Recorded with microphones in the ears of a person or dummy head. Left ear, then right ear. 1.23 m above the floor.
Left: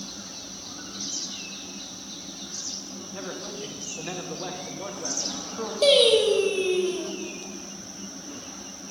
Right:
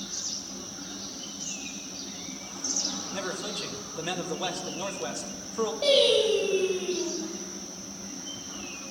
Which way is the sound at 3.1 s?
70° right (ahead or behind).